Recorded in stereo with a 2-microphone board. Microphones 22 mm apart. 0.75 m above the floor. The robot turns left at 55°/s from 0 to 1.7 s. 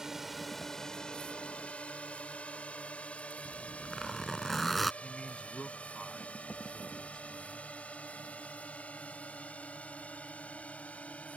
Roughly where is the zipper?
Centre.